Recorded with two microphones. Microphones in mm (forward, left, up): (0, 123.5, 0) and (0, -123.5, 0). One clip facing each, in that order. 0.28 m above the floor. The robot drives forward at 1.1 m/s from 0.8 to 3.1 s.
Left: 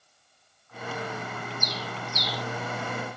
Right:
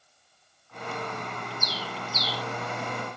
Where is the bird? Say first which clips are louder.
Left 1 dB; 10° right (ahead or behind), 3 m; by 2.4 s 5° right (ahead or behind), 4 m.